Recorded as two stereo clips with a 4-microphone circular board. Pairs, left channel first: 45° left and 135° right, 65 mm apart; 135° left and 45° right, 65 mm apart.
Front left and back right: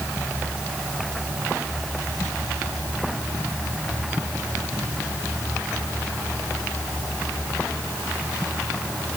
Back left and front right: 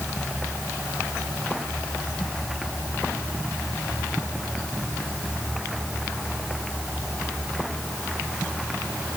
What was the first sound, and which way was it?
Only background noise.